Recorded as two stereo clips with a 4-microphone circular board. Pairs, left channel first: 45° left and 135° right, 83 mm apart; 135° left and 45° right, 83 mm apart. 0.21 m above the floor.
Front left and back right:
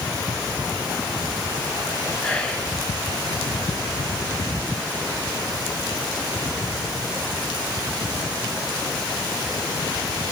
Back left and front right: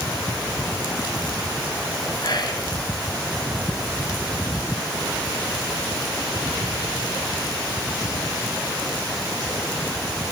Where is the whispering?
120° left, 2.5 m.